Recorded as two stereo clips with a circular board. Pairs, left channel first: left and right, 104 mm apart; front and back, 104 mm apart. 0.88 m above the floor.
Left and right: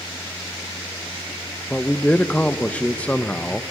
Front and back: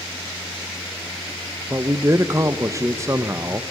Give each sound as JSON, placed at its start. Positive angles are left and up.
{"t": 1.7, "sound": "a man speaking", "azimuth_deg": 155, "distance_m": 0.6}